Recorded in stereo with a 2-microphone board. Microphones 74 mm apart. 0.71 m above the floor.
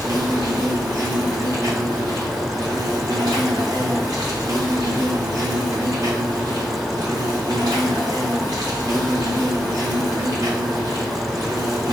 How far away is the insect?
About 1.3 m.